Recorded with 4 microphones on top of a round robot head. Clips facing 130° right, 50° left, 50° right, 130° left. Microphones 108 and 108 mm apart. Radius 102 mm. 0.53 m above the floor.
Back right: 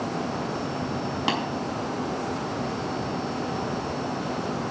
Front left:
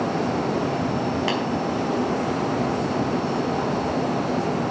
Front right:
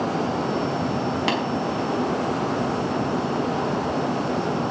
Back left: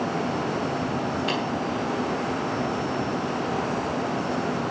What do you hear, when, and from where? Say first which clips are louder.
1.3 s tapping: front left 2 dB, front right 5 dB; 60° right, 5 m